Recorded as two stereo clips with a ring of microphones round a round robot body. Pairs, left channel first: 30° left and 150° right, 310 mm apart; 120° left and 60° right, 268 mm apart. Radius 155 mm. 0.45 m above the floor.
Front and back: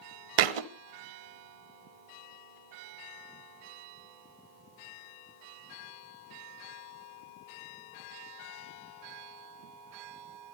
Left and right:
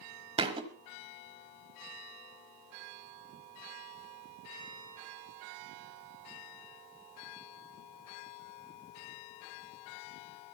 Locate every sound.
0.4 s a thud: 135° right, 1.1 m